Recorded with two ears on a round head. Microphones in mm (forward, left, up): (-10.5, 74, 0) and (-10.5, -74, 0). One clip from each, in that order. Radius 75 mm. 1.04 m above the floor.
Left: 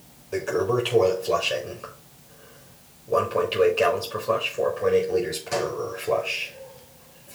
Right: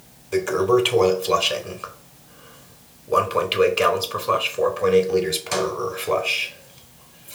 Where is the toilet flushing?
50° right (ahead or behind), 3.5 m.